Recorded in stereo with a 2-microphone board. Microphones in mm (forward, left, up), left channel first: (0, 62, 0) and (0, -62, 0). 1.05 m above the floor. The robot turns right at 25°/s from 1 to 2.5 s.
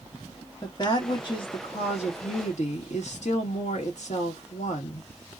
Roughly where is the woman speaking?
Ahead left.